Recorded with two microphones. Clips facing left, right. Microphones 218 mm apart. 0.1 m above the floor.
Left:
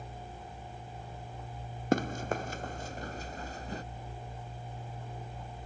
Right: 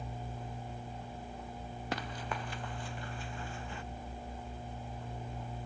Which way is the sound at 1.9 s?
45° left (ahead or behind).